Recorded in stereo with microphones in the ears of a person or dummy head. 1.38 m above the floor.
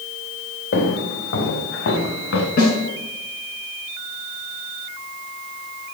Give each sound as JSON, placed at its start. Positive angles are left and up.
{"t": 0.7, "sound": "footsteps", "side_deg": 75, "distance_m": 4.5}
{"t": 2.6, "sound": "a snare drum", "side_deg": 50, "distance_m": 6.0}